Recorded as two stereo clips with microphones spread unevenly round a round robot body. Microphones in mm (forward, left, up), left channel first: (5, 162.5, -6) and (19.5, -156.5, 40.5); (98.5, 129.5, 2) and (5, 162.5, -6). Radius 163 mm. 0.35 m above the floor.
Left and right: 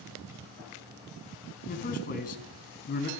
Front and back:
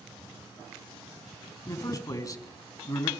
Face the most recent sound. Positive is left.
turn(degrees=35)